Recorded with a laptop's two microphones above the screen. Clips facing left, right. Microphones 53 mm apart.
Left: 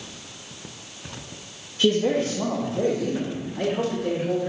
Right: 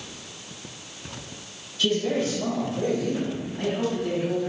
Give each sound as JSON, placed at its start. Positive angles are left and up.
{"t": 1.8, "sound": "a man speaking", "side_deg": 45, "distance_m": 1.0}